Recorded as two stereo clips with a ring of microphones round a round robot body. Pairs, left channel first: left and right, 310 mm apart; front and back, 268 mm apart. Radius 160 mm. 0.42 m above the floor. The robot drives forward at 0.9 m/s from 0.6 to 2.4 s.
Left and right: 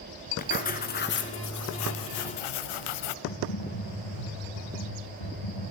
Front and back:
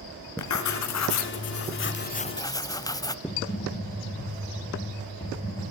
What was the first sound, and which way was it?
Writing, 25° left.